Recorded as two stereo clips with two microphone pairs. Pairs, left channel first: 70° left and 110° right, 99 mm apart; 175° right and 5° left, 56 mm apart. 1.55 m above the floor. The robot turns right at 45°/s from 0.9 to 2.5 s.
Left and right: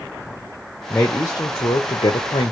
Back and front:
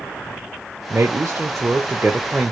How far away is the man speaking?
About 0.6 m.